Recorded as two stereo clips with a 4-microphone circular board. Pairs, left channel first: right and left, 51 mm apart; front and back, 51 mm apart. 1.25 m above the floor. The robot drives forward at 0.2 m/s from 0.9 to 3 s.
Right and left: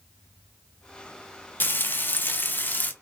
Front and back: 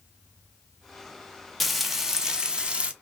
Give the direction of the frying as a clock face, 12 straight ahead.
3 o'clock.